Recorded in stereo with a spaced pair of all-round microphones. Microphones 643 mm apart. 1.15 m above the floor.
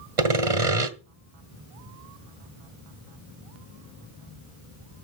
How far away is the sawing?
About 1.4 m.